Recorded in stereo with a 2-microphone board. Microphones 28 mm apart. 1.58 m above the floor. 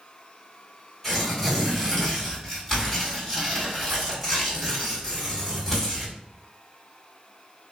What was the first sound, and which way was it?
Tearing paper, centre (ahead or behind).